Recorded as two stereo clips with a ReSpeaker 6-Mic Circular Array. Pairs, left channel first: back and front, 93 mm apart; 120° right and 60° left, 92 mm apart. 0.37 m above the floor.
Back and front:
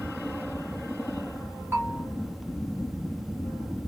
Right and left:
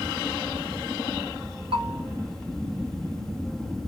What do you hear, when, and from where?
1.7 s a bell: 60° left, 1.9 m